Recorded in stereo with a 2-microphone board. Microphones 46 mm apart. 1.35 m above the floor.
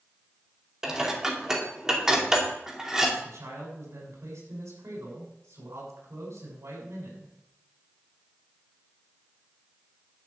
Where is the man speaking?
85° right, 6 m.